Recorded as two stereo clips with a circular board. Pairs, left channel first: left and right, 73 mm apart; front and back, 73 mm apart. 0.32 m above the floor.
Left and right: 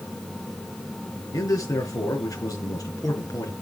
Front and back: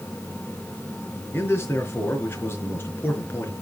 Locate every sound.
1.3 s a man speaking: 55° left, 4.5 m